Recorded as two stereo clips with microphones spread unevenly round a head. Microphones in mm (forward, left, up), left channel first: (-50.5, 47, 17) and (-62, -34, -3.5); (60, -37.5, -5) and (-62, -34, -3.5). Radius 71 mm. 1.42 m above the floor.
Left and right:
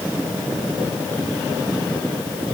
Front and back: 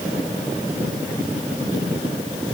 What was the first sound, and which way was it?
Only background noise.